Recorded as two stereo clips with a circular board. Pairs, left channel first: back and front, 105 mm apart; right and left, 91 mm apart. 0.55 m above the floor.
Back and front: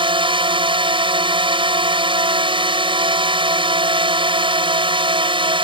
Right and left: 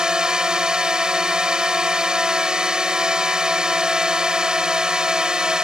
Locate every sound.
0.0 s a drone: 10° left